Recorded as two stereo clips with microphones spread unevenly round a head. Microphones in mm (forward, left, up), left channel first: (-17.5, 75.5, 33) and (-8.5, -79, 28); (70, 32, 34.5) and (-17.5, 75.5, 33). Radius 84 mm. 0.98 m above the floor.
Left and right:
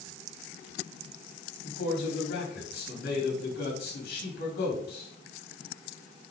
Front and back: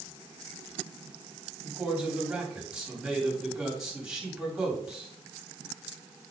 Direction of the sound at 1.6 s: 70° left.